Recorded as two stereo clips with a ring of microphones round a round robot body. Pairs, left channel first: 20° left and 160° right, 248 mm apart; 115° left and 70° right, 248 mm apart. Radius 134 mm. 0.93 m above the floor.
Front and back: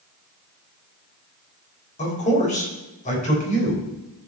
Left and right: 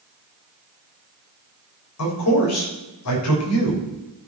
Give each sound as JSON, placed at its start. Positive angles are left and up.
{"t": 2.0, "sound": "a man speaking", "azimuth_deg": 85, "distance_m": 3.5}